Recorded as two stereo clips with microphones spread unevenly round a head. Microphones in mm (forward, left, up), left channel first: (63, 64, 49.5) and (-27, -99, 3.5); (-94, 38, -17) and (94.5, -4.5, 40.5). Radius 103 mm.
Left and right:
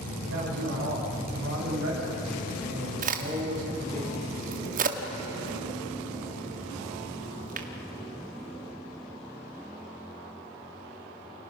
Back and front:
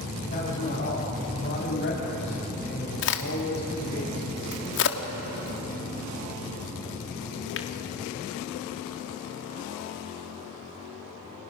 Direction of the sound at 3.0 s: 170° right.